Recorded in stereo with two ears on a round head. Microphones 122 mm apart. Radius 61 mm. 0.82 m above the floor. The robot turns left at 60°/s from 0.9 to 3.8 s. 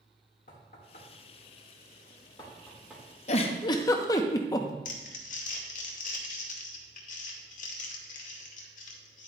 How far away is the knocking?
About 1.8 m.